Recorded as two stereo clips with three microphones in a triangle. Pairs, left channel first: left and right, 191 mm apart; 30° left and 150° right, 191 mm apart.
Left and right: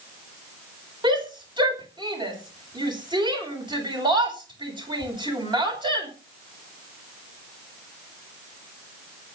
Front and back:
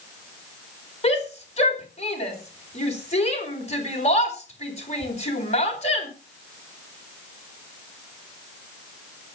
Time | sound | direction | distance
1.0 | a shout | 25° right | 4.5 m